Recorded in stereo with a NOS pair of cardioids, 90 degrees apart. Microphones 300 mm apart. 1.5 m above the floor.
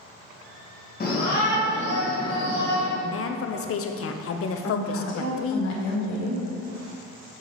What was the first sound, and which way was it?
A shout, 30° left.